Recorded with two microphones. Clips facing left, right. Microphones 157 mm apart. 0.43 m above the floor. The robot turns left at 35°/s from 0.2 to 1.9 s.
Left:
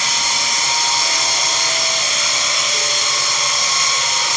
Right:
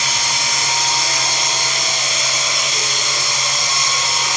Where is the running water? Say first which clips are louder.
Even; 75° right, 1.1 m; by 4.4 s 135° right, 1.1 m.